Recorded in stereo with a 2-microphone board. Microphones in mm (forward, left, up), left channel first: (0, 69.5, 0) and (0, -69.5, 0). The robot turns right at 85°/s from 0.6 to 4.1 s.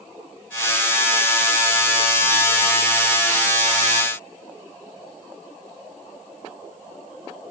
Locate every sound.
Only background noise.